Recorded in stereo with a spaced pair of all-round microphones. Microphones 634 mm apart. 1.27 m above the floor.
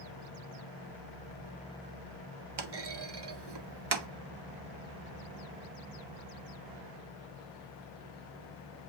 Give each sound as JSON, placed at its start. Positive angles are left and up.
{"t": 2.6, "sound": "a clunk", "side_deg": -40, "distance_m": 0.6}